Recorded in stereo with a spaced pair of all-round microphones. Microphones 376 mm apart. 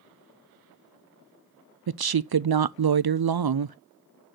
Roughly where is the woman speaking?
Right.